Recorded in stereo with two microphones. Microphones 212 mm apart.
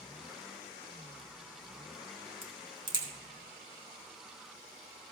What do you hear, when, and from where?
2.4 s a crack: 20° right (ahead or behind), 2 m